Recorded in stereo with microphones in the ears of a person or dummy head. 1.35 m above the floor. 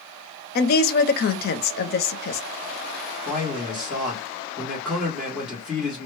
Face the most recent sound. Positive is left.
turn(degrees=0)  # may be behind; listen again after turning